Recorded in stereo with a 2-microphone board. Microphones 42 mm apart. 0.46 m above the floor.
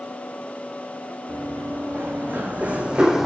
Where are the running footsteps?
50° right (ahead or behind), 2 m; by 3.2 s 5° right (ahead or behind), 0.7 m.